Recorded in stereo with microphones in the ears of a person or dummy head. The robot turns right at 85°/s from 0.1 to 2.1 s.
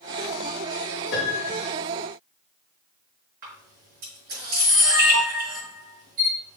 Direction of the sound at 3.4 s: 50° right (ahead or behind).